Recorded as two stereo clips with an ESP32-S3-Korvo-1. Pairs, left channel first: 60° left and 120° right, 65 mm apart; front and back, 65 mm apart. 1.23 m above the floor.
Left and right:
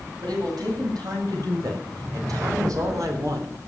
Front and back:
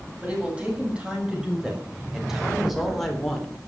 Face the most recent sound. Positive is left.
turn(degrees=-80)